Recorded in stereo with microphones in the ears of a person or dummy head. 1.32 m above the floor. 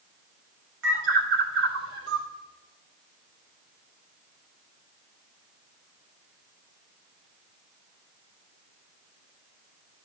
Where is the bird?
70° right (ahead or behind), 1.9 m.